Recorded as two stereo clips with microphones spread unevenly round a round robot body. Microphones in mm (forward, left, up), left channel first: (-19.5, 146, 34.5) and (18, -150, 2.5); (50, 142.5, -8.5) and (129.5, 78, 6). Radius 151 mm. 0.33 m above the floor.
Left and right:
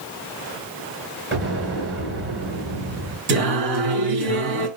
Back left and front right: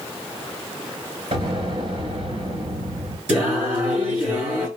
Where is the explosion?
30° right, 3 m.